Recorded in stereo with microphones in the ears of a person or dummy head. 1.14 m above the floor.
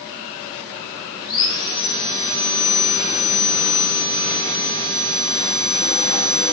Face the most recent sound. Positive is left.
turn(degrees=30)  # may be behind; listen again after turning